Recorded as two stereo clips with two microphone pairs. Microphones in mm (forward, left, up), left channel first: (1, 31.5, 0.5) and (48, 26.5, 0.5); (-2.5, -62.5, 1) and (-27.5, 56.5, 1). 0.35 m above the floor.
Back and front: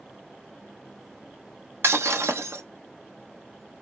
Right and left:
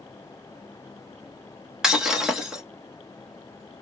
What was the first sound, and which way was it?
Breaking glass, 20° left.